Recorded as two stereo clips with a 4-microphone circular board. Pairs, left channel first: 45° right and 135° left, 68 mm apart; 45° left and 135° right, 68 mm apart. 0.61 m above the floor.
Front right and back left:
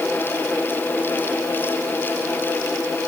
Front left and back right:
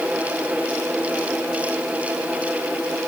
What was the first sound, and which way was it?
Only background noise.